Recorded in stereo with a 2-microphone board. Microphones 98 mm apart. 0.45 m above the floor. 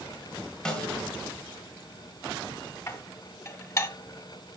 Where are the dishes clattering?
35° left (ahead or behind), 1.5 m.